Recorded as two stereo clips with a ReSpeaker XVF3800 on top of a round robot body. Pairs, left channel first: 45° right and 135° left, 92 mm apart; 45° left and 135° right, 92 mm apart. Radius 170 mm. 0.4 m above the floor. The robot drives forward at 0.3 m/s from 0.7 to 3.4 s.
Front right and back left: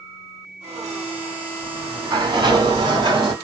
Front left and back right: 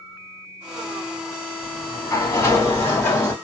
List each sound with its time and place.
1.6 s a sliding door: 90° left, 2.5 m; by 3.3 s 105° left, 2.5 m